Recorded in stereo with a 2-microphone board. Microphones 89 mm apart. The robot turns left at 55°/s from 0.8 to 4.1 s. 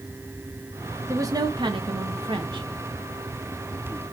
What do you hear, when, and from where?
1.1 s a woman speaking: 35° right, 1.2 m; by 2.6 s 120° right, 1.2 m